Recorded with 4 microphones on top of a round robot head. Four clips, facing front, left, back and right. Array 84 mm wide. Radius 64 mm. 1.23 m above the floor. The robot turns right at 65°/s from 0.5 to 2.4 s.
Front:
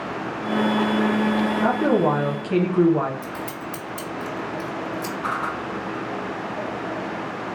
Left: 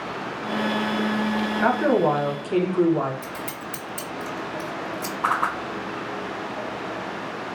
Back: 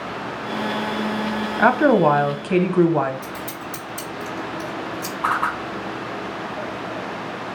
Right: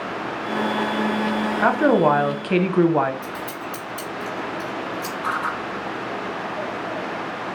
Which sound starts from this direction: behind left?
A whoosh, at 5.2 s.